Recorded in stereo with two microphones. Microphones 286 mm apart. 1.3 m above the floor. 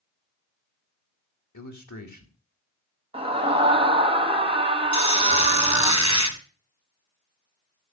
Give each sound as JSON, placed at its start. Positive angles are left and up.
{"t": 1.5, "sound": "a man speaking", "side_deg": 80, "distance_m": 2.5}
{"t": 3.1, "sound": "a scream", "side_deg": -20, "distance_m": 1.8}
{"t": 4.9, "sound": "a squeak", "side_deg": -70, "distance_m": 2.5}